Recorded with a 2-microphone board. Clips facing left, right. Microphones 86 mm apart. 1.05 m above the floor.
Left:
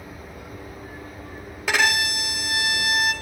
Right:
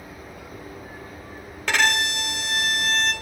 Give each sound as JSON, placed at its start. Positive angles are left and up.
{"t": 1.7, "sound": "a violin", "side_deg": 5, "distance_m": 0.7}